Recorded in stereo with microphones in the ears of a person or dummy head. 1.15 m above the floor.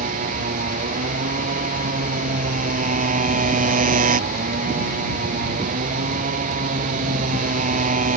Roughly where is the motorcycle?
Right.